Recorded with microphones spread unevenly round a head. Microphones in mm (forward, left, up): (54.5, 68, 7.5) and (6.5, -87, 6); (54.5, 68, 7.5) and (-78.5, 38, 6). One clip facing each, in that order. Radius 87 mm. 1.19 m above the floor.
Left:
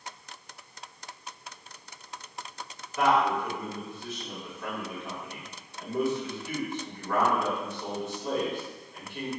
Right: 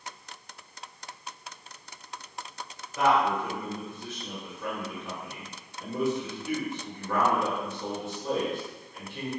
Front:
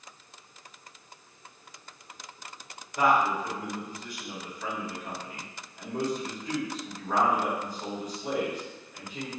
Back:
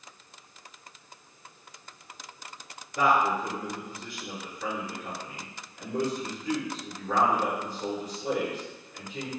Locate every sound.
3.0 s a man speaking: 175° right, 2.0 m